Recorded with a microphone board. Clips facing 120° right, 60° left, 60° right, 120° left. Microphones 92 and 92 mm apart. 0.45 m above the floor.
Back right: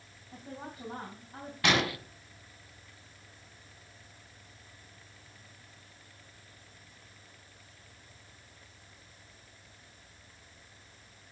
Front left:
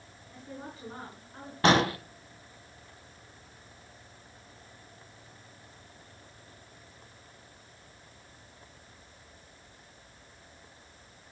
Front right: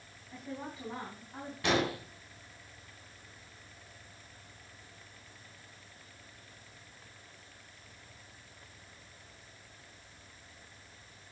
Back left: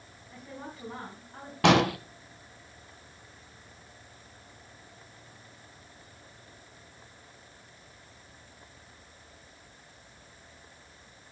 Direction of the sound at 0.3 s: 145° right.